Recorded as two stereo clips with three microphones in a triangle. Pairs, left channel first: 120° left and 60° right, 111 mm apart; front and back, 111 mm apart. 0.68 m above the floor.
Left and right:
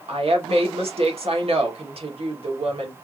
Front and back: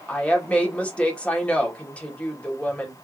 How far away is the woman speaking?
About 1.5 m.